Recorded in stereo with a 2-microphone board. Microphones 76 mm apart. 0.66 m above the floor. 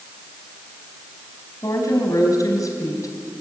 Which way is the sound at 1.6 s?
50° left (ahead or behind).